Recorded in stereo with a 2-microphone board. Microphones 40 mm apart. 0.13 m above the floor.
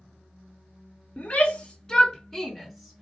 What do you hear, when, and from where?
1.2 s a shout: 30° left (ahead or behind), 1.4 m; by 3.0 s 5° right (ahead or behind), 1.7 m